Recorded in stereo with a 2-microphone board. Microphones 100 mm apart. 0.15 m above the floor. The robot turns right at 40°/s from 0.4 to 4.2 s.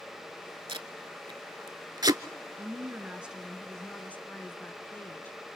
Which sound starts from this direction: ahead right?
A woman speaking, at 2.6 s.